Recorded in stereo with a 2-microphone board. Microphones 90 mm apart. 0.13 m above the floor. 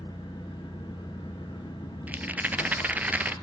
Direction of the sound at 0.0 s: 50° left (ahead or behind).